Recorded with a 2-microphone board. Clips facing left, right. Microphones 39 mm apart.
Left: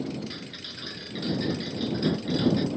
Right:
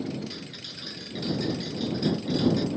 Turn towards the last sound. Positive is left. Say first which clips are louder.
# left 1 dB
turn(degrees=15)  # may be behind; listen again after turning